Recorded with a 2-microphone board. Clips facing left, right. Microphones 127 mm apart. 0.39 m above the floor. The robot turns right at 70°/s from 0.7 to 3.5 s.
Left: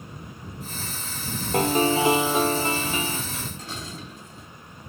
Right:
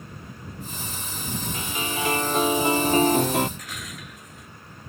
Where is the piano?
120° left; by 3.5 s 105° right.